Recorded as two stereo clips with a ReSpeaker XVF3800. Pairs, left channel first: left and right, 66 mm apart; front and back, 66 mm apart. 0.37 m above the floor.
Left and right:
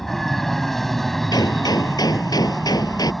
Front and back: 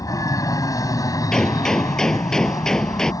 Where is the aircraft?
5° left; by 3.2 s straight ahead.